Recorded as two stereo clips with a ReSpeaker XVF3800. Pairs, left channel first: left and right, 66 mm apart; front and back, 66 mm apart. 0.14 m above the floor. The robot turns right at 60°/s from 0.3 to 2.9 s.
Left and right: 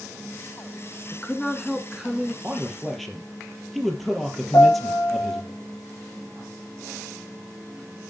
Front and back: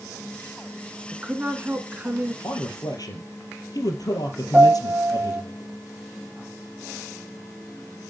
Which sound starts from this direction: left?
A piano, at 4.5 s.